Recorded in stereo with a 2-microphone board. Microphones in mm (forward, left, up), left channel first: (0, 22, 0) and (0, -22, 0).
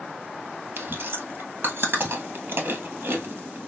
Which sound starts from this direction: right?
Chewing, at 0.8 s.